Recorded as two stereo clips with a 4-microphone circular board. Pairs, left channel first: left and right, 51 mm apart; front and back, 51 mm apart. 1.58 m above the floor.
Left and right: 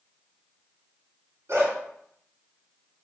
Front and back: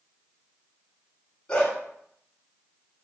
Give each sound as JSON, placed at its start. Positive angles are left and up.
{"t": 1.5, "sound": "a dog barking", "azimuth_deg": -70, "distance_m": 3.5}